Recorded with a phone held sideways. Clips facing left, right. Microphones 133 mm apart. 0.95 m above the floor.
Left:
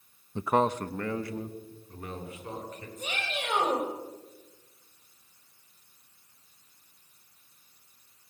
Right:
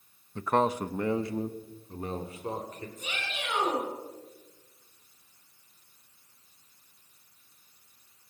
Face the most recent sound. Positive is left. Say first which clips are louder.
# left 6 dB
turn(degrees=40)  # may be behind; listen again after turning